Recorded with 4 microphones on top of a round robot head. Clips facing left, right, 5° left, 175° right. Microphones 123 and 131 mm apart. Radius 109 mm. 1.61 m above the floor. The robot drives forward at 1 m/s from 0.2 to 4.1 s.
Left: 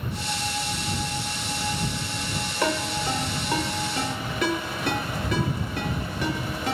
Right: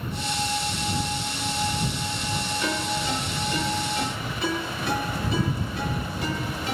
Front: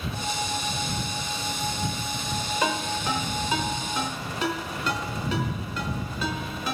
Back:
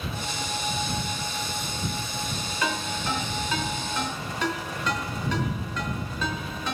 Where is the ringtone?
75° left, 5.5 m; by 6.8 s 90° left, 5.5 m.